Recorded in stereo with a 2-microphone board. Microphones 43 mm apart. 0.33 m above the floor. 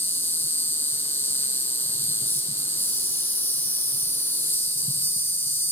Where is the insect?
60° left (ahead or behind), 1.4 m.